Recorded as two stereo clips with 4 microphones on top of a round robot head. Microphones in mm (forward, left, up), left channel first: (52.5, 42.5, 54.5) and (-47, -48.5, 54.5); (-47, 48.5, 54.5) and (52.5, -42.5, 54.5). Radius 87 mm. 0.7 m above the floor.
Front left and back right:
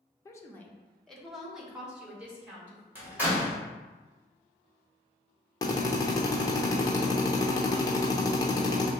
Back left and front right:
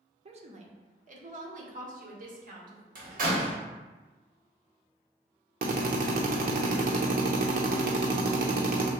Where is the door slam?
60° right, 1.8 m.